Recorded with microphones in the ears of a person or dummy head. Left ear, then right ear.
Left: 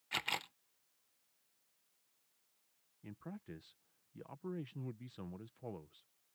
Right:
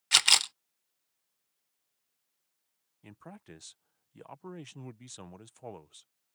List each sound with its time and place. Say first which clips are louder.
0.1 s a camera shutter: right 16 dB; 55° right (ahead or behind)
3.0 s a man speaking: right 2 dB; 30° right (ahead or behind)